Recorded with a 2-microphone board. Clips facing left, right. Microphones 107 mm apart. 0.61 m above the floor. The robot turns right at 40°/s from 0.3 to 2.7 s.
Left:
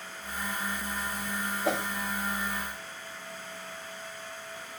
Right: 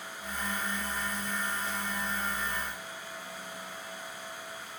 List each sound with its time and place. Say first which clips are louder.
1.6 s a whoosh: left 7 dB; 75° left (ahead or behind); by 1.9 s 85° left